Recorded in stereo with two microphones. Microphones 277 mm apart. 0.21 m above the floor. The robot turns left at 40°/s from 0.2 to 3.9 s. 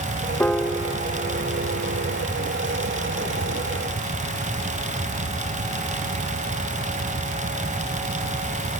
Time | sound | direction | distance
0.4 | a piano | 10° left | ?